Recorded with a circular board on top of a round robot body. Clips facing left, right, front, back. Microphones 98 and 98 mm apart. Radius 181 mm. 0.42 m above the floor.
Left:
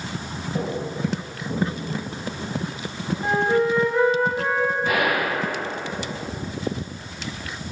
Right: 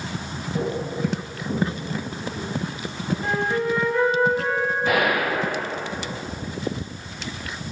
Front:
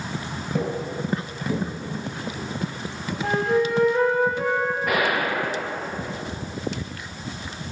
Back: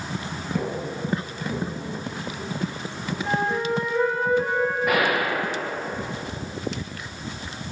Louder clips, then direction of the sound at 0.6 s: Right 2 dB, front 2 dB; 10° left.